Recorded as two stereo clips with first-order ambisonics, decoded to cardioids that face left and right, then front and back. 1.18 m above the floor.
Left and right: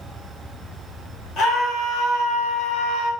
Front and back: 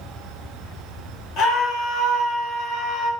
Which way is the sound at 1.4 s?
40° left.